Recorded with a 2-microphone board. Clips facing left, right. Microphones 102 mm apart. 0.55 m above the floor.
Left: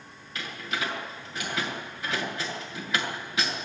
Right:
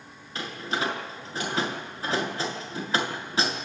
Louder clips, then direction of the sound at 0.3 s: Right 3 dB; 30° right (ahead or behind).